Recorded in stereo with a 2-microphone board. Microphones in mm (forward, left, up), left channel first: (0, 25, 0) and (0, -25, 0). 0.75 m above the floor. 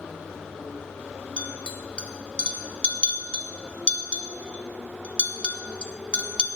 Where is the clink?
20° left (ahead or behind), 0.5 m.